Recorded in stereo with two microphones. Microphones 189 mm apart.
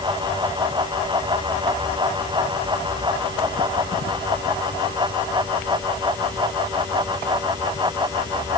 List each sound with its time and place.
Only background noise.